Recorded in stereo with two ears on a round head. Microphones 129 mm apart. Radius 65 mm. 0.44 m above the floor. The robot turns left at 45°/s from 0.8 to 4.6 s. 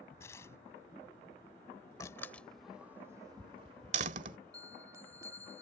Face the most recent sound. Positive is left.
turn(degrees=-20)  # may be behind; listen again after turning